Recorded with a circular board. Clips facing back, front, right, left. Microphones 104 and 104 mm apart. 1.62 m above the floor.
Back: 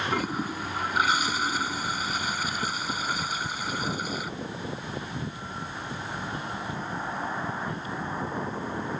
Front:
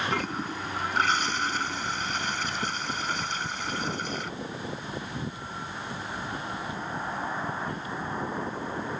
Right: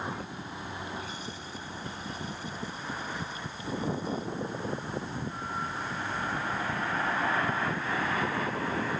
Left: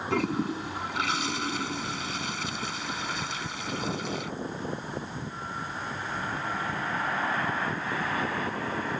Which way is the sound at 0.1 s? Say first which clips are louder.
Back 2 dB, left 11 dB; 100° left.